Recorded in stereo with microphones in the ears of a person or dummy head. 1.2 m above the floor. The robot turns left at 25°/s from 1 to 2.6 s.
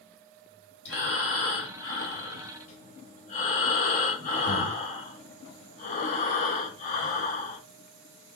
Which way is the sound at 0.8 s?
90° left.